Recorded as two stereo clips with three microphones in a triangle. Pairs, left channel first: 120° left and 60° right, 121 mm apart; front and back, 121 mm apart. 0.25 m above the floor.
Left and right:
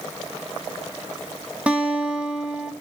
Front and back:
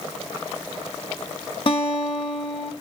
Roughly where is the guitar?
Ahead.